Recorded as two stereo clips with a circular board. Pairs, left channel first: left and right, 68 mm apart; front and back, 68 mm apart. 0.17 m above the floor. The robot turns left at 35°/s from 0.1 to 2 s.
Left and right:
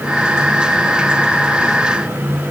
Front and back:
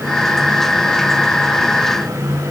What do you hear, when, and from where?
Only background noise.